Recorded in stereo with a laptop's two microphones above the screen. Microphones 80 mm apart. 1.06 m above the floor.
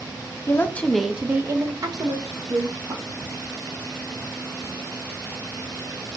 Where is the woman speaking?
35° left (ahead or behind), 0.6 m; by 3.0 s 65° right (ahead or behind), 1.4 m.